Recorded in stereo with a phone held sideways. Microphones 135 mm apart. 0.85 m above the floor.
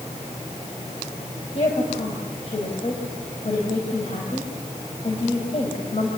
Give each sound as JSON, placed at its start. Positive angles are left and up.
{"t": 1.6, "sound": "a woman speaking", "side_deg": 50, "distance_m": 4.5}